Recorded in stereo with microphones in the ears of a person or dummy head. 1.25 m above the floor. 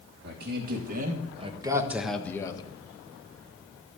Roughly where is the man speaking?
Right.